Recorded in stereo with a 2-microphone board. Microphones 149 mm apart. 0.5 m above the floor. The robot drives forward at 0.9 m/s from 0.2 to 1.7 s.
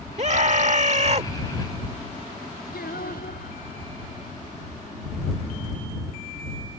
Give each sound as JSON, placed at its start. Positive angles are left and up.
{"t": 0.2, "sound": "a scream", "side_deg": -50}
{"t": 2.7, "sound": "singing", "side_deg": 85}